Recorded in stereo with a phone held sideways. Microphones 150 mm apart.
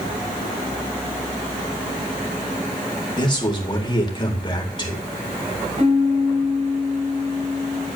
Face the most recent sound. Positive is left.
turn(degrees=-50)  # may be behind; listen again after turning